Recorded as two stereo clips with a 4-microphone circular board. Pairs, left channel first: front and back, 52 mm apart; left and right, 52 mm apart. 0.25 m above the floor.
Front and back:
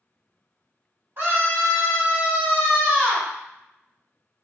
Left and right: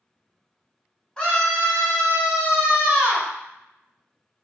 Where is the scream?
165° left, 1.8 m; by 3.3 s 110° right, 1.8 m.